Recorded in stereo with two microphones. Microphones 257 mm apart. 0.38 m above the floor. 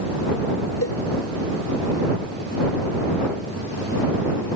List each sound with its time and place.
0.8 s a cowbell: 60° left (ahead or behind)